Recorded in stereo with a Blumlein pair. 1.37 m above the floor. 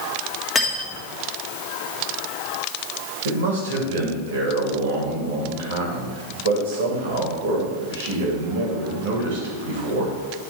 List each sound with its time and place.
0.6 s cutlery clinking: 15° left, 1.8 m
3.2 s a man speaking: 60° right, 2.5 m